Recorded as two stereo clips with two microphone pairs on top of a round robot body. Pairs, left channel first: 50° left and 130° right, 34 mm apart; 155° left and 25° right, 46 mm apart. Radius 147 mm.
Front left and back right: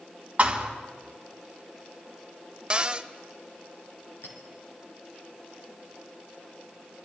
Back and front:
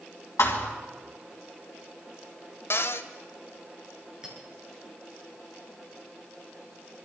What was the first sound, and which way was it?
A thud, 175° left.